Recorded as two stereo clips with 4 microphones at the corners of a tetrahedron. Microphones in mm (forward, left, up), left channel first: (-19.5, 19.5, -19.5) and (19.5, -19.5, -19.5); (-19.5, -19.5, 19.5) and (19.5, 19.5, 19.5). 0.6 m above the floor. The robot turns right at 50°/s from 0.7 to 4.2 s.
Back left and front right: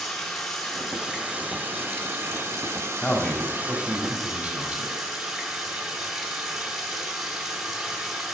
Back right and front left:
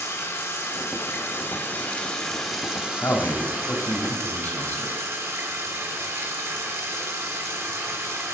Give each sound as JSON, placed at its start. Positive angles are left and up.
{"t": 0.0, "sound": "running water", "azimuth_deg": -140, "distance_m": 1.0}
{"t": 3.0, "sound": "a man speaking", "azimuth_deg": -160, "distance_m": 1.1}